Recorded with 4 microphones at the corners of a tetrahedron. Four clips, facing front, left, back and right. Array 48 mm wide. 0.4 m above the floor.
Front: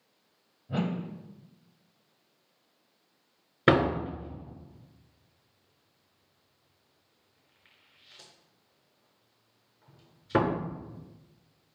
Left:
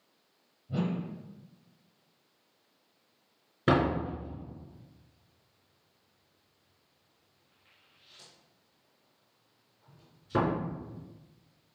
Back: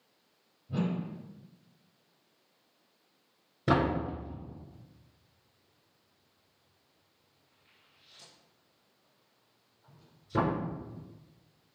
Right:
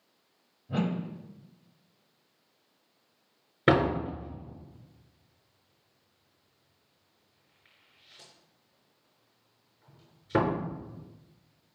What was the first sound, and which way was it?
A whoosh, 40° right.